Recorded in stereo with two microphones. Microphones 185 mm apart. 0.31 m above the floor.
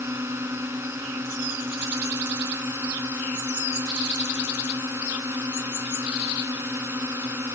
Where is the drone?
15° right (ahead or behind).